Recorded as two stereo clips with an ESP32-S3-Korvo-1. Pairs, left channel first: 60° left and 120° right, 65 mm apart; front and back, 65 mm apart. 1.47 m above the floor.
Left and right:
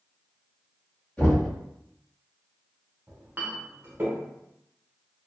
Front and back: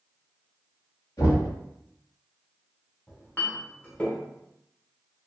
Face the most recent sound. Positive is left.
turn(degrees=-60)